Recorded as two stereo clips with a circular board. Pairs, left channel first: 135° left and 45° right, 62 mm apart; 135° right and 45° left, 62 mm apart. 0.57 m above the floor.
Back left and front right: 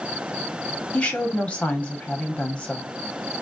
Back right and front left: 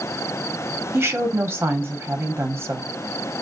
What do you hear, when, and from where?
0.9 s a woman speaking: 70° left, 1.3 m